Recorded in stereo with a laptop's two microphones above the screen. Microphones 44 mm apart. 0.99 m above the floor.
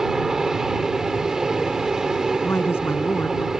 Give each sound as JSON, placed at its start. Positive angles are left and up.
{"t": 0.0, "sound": "an aircraft", "side_deg": -10}
{"t": 2.4, "sound": "a woman speaking", "side_deg": 65}